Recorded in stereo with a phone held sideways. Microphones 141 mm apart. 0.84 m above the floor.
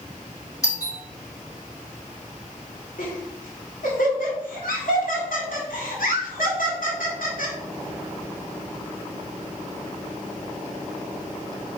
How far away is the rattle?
No rattle in this recording.